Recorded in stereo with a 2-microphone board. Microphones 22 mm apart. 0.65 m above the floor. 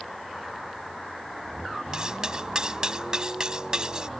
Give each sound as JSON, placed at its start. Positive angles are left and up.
{"t": 1.9, "sound": "cutlery clinking", "side_deg": -40}